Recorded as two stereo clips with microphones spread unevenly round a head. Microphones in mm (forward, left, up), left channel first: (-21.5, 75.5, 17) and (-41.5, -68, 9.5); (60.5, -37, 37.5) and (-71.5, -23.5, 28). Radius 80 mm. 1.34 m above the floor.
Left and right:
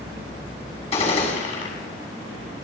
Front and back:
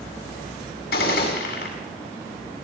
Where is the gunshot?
25° left, 7 m.